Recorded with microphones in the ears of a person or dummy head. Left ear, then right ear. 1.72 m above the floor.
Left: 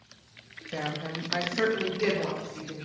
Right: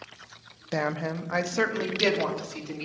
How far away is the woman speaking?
About 0.6 m.